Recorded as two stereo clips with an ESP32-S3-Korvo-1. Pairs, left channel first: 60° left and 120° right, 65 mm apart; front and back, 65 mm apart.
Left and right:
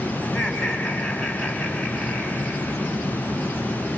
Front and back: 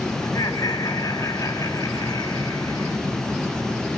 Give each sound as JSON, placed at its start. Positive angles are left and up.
{"t": 0.2, "sound": "laughter", "azimuth_deg": -25, "distance_m": 3.5}